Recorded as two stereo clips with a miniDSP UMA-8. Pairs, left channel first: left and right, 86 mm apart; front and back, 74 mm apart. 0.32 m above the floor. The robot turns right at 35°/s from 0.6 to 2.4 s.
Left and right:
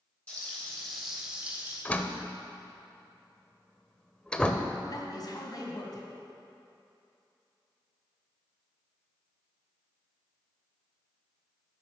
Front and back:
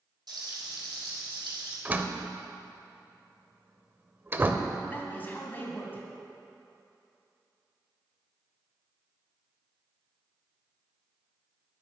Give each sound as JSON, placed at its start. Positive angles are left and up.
{"t": 0.3, "sound": "frying", "azimuth_deg": 165, "distance_m": 3.5}
{"t": 1.9, "sound": "a door slam", "azimuth_deg": 140, "distance_m": 0.6}
{"t": 4.8, "sound": "a man speaking", "azimuth_deg": 60, "distance_m": 1.7}